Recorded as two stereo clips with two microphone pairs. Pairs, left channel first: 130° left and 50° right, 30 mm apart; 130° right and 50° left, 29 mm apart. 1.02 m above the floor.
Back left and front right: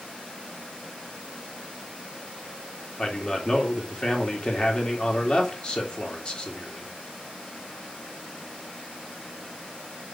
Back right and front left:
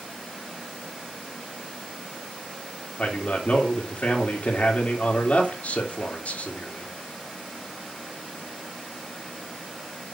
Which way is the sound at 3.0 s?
170° right.